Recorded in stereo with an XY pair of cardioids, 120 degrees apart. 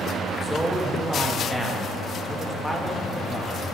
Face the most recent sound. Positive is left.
turn(degrees=0)